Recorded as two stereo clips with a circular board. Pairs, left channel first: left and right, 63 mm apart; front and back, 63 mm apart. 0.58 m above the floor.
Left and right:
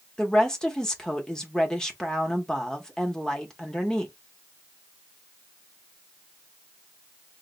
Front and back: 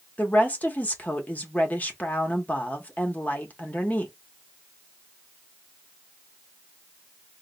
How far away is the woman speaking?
About 0.7 m.